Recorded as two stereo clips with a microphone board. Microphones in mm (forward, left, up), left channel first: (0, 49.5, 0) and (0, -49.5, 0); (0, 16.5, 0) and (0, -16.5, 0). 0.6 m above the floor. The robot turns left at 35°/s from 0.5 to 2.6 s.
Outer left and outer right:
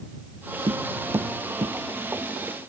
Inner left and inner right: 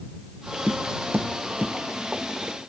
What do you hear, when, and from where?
0.7 s tapping: 65° right (ahead or behind); by 1.8 s 75° right (ahead or behind)